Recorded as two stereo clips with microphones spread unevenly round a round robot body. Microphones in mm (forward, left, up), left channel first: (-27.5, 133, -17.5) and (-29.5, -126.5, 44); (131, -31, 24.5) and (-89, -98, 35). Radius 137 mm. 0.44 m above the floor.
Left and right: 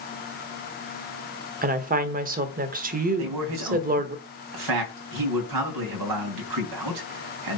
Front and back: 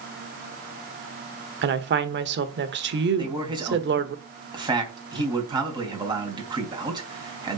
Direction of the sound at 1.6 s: 150° right.